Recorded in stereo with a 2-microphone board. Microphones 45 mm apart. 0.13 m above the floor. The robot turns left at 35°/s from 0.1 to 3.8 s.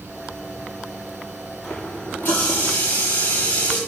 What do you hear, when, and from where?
1.6 s a running tap: 150° left, 8.5 m; by 3.8 s 75° left, 8.5 m